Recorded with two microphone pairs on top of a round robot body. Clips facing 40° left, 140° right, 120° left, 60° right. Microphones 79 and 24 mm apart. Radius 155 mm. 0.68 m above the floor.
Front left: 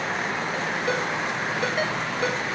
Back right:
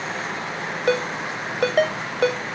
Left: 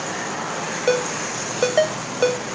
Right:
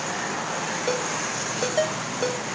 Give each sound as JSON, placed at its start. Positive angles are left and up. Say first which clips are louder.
{"t": 0.9, "sound": "a ringtone", "louder": "back right 7 dB, left 8 dB", "azimuth_deg": -175, "distance_m": 1.7}